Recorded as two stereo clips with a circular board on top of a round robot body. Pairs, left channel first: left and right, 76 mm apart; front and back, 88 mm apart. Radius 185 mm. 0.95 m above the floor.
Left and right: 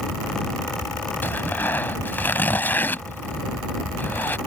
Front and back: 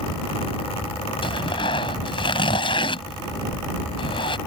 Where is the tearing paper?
30° left.